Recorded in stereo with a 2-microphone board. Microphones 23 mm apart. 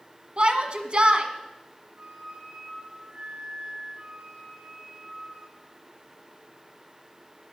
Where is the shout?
50° right (ahead or behind), 1.5 m.